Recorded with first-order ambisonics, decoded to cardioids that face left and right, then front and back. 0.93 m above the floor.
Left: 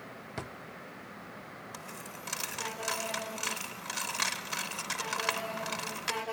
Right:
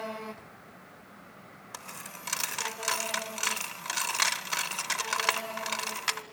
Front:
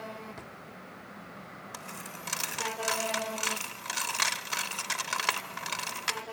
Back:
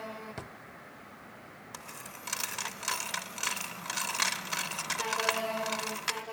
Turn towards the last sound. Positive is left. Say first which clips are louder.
# right 5 dB, front 2 dB
turn(degrees=-70)